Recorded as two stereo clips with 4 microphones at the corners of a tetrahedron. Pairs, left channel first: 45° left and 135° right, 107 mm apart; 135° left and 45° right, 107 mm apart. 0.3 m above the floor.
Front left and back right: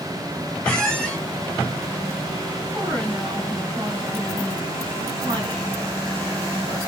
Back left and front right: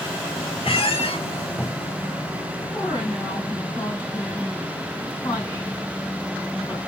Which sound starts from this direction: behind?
A woman speaking, at 2.7 s.